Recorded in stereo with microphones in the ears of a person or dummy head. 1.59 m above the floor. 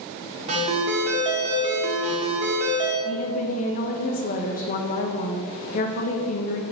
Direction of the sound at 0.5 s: 35° right (ahead or behind).